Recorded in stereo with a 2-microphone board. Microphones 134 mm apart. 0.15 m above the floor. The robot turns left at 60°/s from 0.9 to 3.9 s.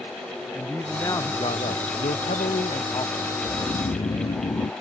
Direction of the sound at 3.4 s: 115° left.